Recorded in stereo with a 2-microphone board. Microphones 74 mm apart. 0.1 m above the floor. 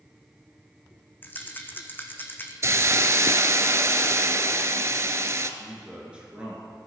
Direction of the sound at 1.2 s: 25° left (ahead or behind).